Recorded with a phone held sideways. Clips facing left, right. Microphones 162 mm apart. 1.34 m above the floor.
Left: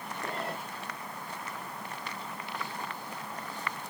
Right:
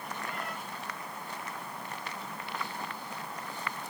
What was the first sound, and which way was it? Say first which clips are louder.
A cat meowing: left 6 dB; 30° left (ahead or behind).